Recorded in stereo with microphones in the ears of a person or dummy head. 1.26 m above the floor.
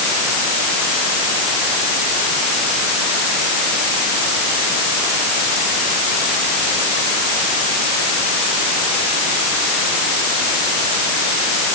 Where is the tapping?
I don't hear tapping.